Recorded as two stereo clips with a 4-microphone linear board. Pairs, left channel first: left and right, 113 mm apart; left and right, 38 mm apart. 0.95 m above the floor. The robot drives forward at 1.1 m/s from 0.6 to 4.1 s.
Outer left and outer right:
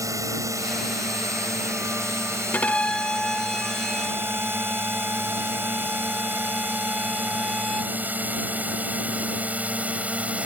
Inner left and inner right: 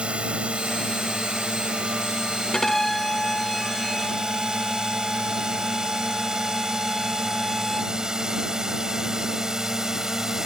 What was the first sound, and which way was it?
A drone, 30° right (ahead or behind).